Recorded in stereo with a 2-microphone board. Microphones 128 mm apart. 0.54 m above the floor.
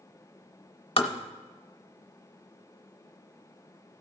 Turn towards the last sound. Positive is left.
turn(degrees=45)  # may be behind; listen again after turning